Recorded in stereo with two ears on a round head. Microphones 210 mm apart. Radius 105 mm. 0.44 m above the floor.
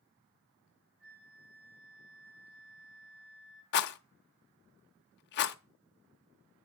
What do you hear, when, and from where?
1.0 s a flute: 55° right (ahead or behind), 7 m
3.7 s a rattle: 50° left (ahead or behind), 0.7 m